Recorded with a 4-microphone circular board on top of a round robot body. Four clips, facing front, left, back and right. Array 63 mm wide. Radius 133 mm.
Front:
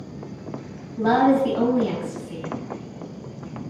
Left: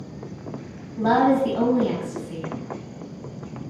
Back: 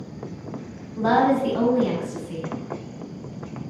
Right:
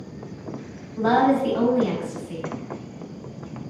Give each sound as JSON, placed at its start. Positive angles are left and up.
{"t": 1.0, "sound": "a woman speaking", "azimuth_deg": -125, "distance_m": 1.9}